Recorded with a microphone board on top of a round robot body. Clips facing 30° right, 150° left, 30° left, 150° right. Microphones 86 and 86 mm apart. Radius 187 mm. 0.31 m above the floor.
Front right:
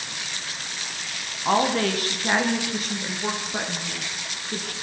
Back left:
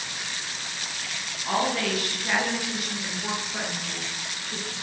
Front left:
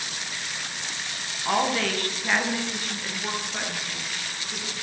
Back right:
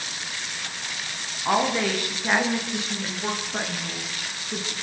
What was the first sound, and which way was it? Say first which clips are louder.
A woman speaking: front right 4 dB, back right 2 dB; 75° right.